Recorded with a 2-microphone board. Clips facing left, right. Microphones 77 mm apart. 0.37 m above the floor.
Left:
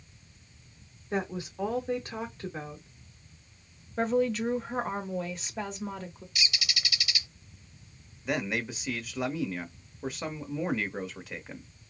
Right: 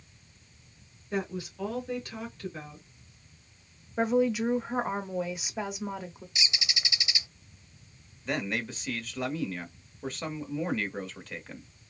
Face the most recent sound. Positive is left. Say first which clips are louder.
# left 1 dB
turn(degrees=10)  # may be behind; listen again after turning